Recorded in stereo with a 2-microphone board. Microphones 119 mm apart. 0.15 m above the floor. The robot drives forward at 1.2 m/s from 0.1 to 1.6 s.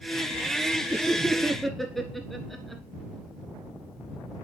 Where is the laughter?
Centre (ahead or behind), 3 m.